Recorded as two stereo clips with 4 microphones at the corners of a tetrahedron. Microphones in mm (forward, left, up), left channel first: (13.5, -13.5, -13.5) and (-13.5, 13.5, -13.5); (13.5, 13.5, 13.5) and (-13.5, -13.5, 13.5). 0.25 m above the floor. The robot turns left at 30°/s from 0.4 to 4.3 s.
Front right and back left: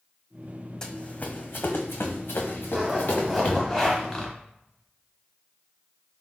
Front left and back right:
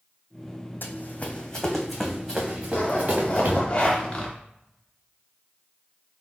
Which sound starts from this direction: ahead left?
Running footsteps, at 0.8 s.